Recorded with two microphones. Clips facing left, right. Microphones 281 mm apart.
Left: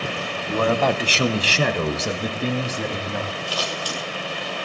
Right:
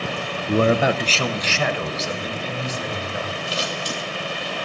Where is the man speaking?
40° right (ahead or behind), 0.8 m; by 3.4 s 70° left (ahead or behind), 3 m.